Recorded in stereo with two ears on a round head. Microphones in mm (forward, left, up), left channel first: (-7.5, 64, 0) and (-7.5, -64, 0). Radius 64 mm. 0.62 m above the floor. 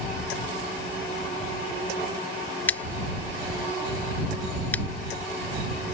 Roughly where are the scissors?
Centre.